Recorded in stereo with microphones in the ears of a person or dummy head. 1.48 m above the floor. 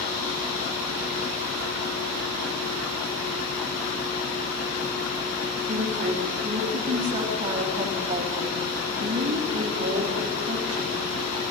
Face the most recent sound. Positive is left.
turn(degrees=-35)  # may be behind; listen again after turning